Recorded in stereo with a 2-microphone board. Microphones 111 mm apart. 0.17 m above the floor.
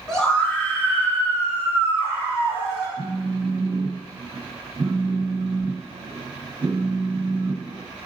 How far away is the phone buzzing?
About 0.7 m.